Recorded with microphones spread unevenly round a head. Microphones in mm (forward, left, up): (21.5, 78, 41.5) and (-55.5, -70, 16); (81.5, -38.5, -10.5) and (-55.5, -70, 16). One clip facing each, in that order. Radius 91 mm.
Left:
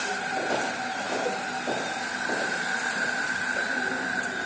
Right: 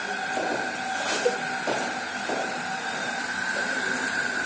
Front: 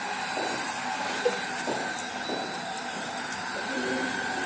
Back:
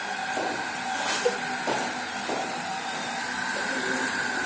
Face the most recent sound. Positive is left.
turn(degrees=-80)